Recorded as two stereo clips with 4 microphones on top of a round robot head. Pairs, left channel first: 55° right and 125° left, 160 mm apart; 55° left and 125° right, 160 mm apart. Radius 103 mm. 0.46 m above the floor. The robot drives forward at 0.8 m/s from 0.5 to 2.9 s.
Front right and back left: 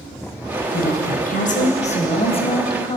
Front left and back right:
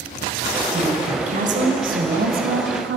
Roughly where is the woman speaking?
Right.